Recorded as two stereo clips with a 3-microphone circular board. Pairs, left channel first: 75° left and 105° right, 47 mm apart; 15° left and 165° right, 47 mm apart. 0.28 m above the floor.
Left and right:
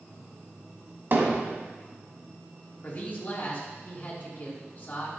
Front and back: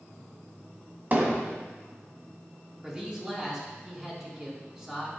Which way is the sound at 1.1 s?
125° right.